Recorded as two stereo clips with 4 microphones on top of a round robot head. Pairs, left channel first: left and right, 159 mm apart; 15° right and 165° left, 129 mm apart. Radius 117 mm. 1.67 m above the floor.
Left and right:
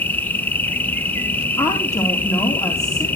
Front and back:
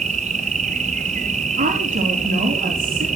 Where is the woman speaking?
160° left, 3.5 m.